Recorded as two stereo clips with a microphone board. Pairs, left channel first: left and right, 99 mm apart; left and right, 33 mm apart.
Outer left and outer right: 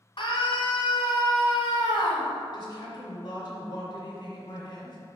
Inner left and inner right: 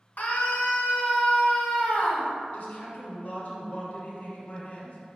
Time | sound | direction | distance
0.2 | a scream | 55° left (ahead or behind) | 1.7 m
2.5 | a woman speaking | 40° left (ahead or behind) | 1.7 m